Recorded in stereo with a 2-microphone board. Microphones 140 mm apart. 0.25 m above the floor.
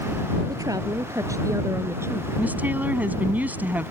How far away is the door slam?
I don't hear a door slam.